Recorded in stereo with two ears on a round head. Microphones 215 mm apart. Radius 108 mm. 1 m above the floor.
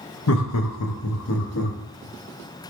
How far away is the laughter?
About 0.6 m.